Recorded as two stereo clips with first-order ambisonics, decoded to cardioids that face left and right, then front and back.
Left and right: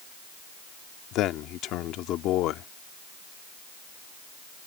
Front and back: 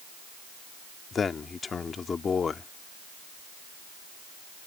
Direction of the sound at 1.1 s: 65° left.